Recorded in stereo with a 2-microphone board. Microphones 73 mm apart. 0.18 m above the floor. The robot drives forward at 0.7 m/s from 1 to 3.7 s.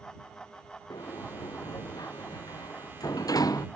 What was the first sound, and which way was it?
A sliding door, 70° left (ahead or behind).